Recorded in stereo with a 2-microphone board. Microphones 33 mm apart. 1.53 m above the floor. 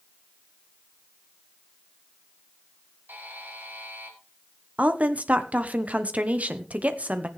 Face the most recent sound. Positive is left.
turn(degrees=-45)  # may be behind; listen again after turning